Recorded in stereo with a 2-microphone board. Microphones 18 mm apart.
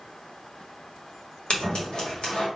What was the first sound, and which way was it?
Scissors, 50° left (ahead or behind).